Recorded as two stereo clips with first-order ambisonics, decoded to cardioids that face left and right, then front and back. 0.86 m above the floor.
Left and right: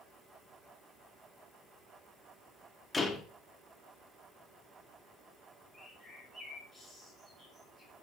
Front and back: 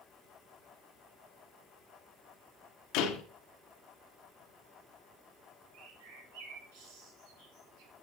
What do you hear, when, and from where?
2.9 s a door slam: 10° left, 1.4 m
5.7 s a bird: straight behind, 2.5 m